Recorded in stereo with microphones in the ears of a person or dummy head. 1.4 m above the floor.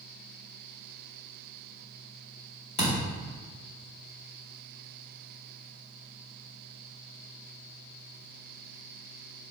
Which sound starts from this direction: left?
A thud, at 2.8 s.